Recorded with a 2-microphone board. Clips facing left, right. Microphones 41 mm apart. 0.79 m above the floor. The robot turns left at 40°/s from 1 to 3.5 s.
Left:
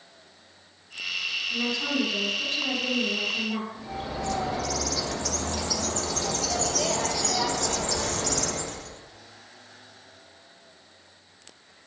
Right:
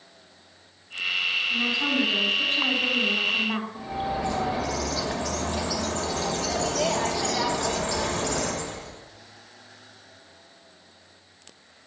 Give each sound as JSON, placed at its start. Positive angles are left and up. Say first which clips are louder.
{"t": 1.5, "sound": "a woman speaking", "louder": "right 3 dB", "azimuth_deg": -20, "distance_m": 3.0}
{"t": 3.8, "sound": "a bird", "louder": "right 5 dB", "side_deg": -25, "distance_m": 1.0}